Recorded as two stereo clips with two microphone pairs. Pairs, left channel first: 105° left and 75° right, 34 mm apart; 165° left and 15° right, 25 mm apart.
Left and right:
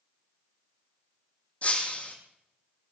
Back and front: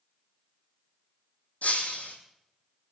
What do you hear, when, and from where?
1.6 s breaking glass: 150° left, 3 m